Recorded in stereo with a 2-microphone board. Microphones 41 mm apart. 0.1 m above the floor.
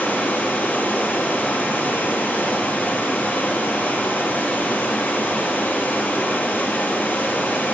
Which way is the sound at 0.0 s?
45° left (ahead or behind).